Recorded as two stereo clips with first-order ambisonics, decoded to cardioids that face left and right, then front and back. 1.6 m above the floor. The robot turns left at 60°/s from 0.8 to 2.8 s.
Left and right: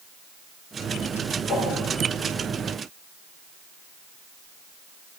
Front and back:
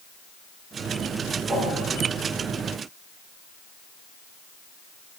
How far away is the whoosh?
About 3 m.